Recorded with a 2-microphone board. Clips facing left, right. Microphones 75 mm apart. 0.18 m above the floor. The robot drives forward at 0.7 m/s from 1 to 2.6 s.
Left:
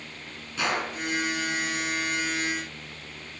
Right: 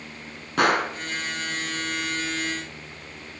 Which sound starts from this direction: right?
A gunshot, at 0.6 s.